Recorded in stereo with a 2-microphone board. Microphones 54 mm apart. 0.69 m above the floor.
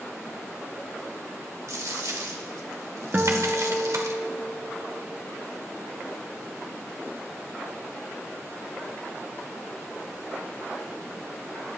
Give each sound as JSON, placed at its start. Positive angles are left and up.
{"t": 1.7, "sound": "a dropped coin", "side_deg": -75, "distance_m": 1.0}
{"t": 3.1, "sound": "a guitar", "side_deg": -30, "distance_m": 1.1}